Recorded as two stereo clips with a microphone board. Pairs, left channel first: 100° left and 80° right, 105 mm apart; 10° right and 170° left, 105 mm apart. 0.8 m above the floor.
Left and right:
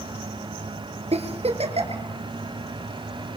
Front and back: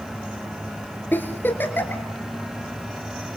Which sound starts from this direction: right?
A giggle, at 1.1 s.